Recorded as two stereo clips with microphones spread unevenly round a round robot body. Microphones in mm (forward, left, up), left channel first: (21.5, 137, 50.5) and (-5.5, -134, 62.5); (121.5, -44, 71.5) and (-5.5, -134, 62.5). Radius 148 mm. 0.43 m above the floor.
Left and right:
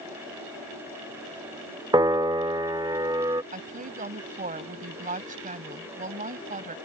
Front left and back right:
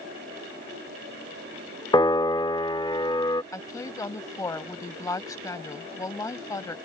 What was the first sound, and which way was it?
A piano, 20° right.